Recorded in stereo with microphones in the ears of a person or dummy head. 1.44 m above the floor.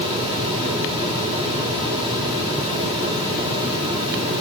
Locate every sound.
Only background noise.